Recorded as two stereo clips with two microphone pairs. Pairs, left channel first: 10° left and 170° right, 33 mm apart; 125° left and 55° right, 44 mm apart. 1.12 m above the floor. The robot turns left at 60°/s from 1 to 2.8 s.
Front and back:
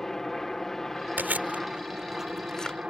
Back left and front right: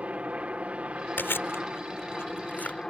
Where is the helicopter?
55° right; by 2.9 s 165° right.